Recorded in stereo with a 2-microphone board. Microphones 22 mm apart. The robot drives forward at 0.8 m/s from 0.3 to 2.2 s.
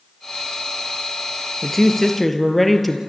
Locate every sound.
1.6 s a woman speaking: 10° left (ahead or behind), 2 m